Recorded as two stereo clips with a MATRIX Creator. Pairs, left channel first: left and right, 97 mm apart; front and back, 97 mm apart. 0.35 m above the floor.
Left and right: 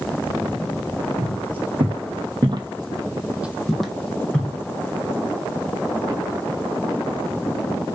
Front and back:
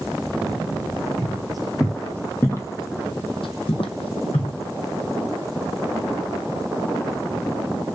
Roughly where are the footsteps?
Right.